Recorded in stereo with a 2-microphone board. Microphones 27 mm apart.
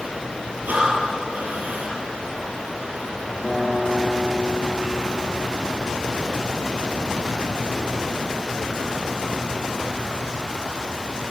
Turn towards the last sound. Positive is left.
turn(degrees=-20)  # may be behind; listen again after turning